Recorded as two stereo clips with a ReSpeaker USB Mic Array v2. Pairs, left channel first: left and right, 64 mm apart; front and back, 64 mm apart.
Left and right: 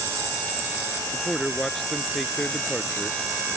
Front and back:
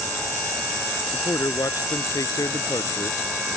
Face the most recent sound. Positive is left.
turn(degrees=5)